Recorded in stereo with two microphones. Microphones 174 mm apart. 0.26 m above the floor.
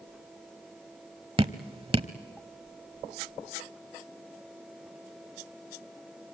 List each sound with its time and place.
1.4 s dripping: 30° right (ahead or behind), 0.8 m